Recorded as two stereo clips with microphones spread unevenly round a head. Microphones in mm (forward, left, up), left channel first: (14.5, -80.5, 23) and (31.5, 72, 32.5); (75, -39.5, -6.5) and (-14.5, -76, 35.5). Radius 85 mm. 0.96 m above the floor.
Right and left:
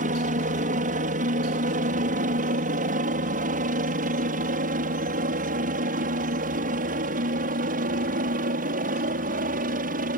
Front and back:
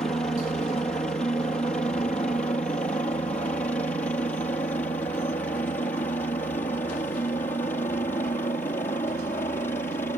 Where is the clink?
I don't hear a clink.